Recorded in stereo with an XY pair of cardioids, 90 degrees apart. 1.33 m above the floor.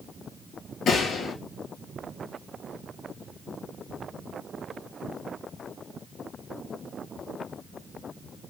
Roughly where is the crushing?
No crushing in this recording.